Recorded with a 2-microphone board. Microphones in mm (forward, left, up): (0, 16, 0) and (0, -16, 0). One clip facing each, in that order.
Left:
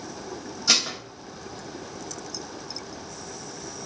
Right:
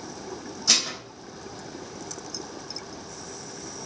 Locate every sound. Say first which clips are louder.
0.7 s dishes clattering: left 1 dB; 15° left (ahead or behind), 0.7 m